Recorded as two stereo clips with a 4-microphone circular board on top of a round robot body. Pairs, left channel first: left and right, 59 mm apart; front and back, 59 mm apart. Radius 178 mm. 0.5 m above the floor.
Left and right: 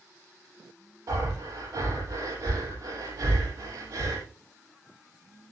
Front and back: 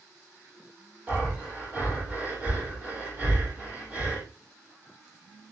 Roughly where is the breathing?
Behind right.